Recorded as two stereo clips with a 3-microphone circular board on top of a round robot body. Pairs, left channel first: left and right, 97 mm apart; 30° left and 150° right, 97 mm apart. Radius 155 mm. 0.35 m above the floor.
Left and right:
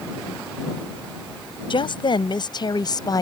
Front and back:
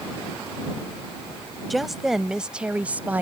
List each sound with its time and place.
1.7 s a woman speaking: 120° left; by 3.2 s 135° left